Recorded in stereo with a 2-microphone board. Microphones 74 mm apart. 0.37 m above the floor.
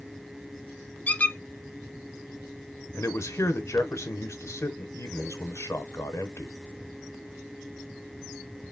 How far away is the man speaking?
About 1.0 m.